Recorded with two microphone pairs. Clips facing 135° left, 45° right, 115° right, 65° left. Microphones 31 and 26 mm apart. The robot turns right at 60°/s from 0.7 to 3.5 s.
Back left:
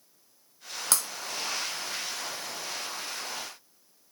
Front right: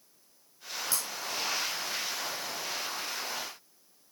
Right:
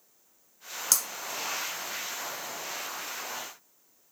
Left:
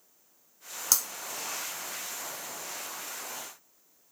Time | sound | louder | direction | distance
0.9 | breaking glass | back left 7 dB, even | 140° left | 2.5 m